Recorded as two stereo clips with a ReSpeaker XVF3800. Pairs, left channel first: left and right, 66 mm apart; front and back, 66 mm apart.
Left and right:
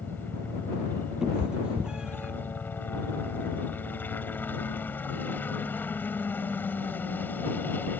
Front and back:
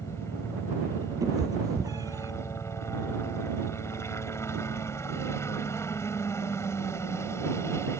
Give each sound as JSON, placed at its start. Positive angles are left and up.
{"t": 0.0, "sound": "a helicopter", "azimuth_deg": 35}
{"t": 1.2, "sound": "a cat meowing", "azimuth_deg": -170}